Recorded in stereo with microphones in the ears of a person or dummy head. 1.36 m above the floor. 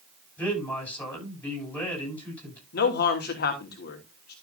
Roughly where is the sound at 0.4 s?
Centre.